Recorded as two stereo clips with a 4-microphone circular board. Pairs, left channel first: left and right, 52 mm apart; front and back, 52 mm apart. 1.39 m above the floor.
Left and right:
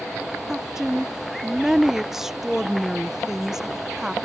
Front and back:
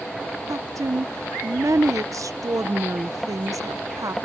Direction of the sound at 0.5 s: 175° right.